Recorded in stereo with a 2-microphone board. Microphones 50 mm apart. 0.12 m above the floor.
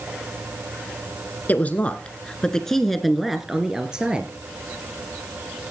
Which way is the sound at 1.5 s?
35° left (ahead or behind).